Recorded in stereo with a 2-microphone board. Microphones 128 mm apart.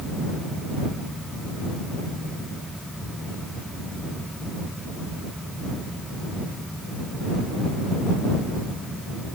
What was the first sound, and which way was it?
Only background noise.